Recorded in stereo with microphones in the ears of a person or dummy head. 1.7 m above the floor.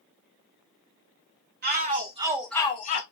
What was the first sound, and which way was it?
A shout, 50° right (ahead or behind).